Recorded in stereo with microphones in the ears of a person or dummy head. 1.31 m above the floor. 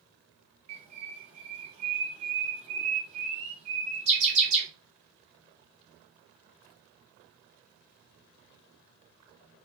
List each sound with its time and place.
0.7 s a bird: 40° right (ahead or behind), 0.7 m